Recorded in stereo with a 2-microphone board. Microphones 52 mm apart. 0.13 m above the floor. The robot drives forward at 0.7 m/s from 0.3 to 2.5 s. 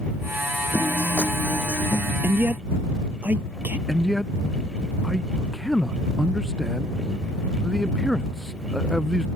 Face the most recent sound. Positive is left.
turn(degrees=5)  # may be behind; listen again after turning